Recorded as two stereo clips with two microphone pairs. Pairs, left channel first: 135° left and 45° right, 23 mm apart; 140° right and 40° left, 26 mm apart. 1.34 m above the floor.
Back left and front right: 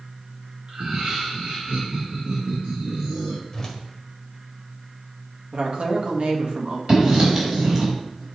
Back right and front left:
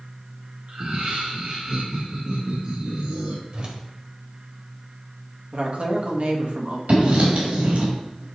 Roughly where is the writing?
Ahead.